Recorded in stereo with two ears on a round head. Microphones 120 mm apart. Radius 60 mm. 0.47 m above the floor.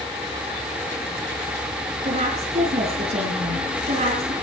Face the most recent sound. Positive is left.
turn(degrees=-50)  # may be behind; listen again after turning